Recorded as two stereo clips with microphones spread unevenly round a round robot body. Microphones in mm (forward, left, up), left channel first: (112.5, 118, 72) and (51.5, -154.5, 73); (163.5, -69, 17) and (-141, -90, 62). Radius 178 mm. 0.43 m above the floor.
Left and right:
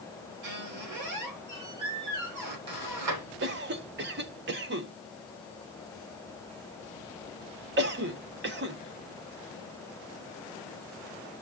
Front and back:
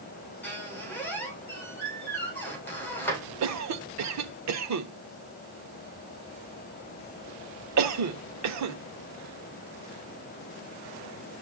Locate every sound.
0.4 s a squeak: 80° right, 6 m
3.4 s a cough: 145° right, 1.2 m